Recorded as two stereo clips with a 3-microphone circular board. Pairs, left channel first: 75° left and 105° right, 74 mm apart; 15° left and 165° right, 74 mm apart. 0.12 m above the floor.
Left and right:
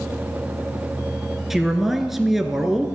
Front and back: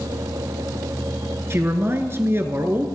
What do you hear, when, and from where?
1.5 s a man speaking: 170° left, 1.3 m